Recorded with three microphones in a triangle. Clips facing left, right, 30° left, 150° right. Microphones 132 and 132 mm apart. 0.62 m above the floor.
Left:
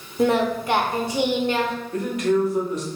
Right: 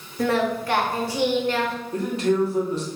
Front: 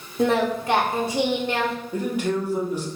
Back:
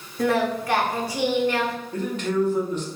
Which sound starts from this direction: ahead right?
A man speaking, at 1.9 s.